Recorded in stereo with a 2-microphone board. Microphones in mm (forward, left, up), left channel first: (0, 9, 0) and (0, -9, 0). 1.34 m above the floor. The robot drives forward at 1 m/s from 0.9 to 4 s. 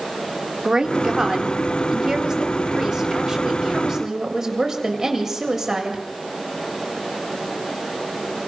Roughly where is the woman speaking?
Right.